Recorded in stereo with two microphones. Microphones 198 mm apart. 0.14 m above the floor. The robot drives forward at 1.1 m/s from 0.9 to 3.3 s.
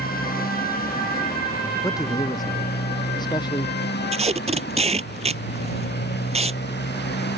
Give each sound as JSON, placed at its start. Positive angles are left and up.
{"t": 0.0, "sound": "a motorcycle", "side_deg": 45}
{"t": 1.8, "sound": "a man speaking", "side_deg": 15}
{"t": 4.1, "sound": "tape being pulled", "side_deg": -30}